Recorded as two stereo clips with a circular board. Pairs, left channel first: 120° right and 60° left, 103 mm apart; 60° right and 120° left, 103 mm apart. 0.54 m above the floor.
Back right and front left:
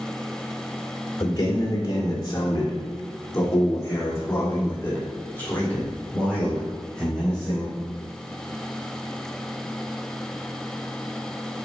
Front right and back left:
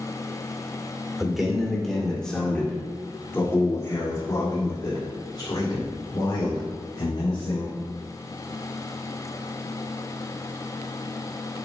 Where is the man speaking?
155° right, 2 m; by 7.8 s 35° right, 3 m.